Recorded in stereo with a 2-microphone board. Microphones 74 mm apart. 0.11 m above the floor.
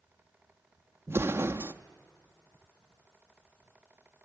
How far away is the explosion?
About 0.7 m.